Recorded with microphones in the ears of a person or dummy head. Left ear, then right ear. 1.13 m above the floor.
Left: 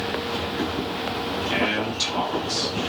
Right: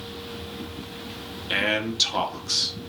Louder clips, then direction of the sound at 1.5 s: Right 2 dB; 20° right (ahead or behind).